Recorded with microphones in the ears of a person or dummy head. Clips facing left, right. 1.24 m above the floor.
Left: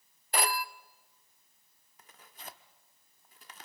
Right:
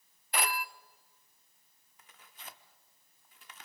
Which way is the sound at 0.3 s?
30° left (ahead or behind).